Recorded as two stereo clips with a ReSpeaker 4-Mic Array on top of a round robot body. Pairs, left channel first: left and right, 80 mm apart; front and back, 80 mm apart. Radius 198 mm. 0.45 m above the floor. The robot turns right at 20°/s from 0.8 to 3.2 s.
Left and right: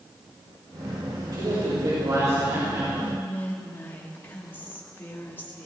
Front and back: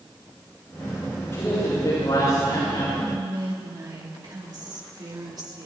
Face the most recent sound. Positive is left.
turn(degrees=155)